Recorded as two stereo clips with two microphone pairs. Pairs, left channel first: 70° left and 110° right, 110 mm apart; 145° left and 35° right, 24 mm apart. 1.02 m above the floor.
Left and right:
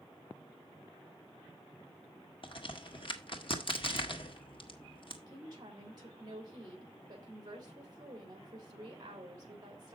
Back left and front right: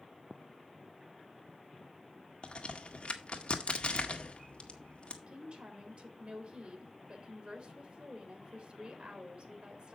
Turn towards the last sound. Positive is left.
turn(degrees=-60)